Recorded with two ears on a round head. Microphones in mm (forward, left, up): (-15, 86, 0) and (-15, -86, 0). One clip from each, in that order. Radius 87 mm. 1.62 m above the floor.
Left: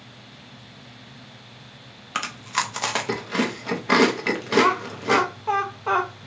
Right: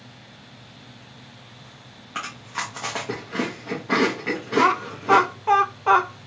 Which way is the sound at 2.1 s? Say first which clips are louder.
Left 4 dB; 70° left (ahead or behind).